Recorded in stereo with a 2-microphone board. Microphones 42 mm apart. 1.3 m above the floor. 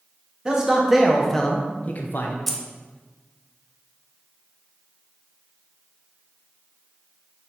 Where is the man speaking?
20° right (ahead or behind), 1.5 m; by 2.4 s 60° left (ahead or behind), 1.0 m.